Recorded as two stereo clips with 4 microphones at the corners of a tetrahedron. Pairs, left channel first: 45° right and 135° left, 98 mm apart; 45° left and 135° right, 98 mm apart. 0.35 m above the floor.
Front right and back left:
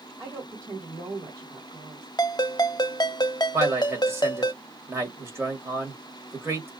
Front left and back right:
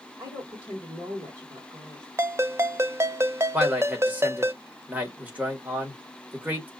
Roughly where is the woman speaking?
Behind.